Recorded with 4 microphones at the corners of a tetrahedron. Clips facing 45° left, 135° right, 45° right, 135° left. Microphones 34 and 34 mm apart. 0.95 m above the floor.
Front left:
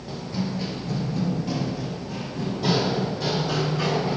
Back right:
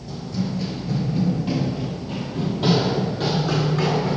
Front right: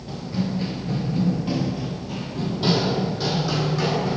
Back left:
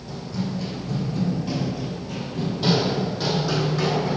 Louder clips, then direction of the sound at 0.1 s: Back right 2 dB, front right 2 dB; straight ahead.